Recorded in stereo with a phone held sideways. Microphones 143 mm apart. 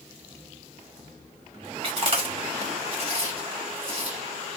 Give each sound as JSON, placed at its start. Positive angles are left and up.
{"t": 1.8, "sound": "chewing", "side_deg": -45, "distance_m": 1.2}